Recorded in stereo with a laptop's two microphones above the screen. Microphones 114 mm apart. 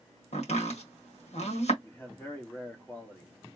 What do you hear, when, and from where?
0.3 s chopping: 80° left, 1.7 m
1.8 s a man speaking: 15° left (ahead or behind), 1.3 m